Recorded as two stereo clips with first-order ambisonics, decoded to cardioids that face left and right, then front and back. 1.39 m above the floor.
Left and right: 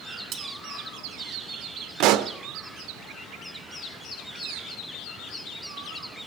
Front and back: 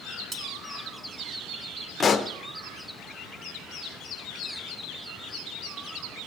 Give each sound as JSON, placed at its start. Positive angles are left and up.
{"t": 0.3, "sound": "cutlery clinking", "azimuth_deg": -120, "distance_m": 1.0}
{"t": 2.0, "sound": "a pop", "azimuth_deg": -70, "distance_m": 0.6}